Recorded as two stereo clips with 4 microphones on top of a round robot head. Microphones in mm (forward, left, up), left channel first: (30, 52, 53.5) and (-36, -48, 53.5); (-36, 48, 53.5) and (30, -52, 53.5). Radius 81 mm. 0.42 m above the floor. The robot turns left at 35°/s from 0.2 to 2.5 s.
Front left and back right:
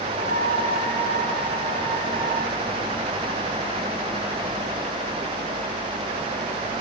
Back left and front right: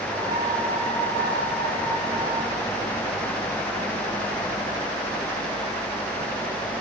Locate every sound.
Only background noise.